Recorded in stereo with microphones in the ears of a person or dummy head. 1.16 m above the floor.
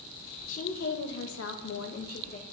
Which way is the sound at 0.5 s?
50° left (ahead or behind).